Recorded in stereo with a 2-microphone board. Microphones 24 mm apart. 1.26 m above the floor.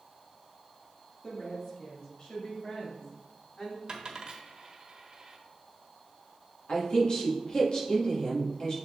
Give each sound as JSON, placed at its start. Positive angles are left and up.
{"t": 1.2, "sound": "a woman speaking", "side_deg": 25, "distance_m": 2.5}
{"t": 3.9, "sound": "a dropped coin", "side_deg": -40, "distance_m": 1.3}
{"t": 6.7, "sound": "a woman speaking", "side_deg": 45, "distance_m": 1.9}